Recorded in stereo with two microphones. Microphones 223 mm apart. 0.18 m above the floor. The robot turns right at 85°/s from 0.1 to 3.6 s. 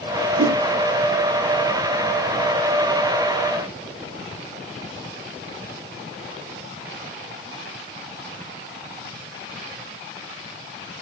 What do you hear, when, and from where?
0.4 s a whoosh: 80° right, 3 m; by 0.6 s 65° right (ahead or behind), 3 m